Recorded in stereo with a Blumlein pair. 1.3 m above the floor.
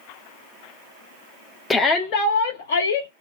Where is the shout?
5° left, 0.5 m; by 3.1 s 70° left, 1.0 m.